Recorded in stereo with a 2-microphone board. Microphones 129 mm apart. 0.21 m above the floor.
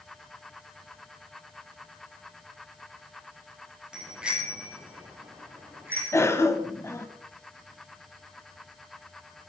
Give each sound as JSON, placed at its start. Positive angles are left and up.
{"t": 3.9, "sound": "a bicycle bell", "side_deg": -5, "distance_m": 4.5}
{"t": 6.1, "sound": "a cough", "side_deg": 20, "distance_m": 1.0}